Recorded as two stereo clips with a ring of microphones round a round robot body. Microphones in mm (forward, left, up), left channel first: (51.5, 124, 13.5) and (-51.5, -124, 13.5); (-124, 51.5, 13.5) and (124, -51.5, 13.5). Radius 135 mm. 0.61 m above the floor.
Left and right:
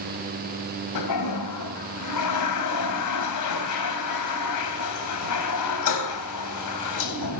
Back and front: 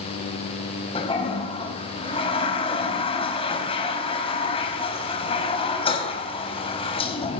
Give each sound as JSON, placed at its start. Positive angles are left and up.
{"t": 0.9, "sound": "a toilet flushing", "azimuth_deg": 85, "distance_m": 4.0}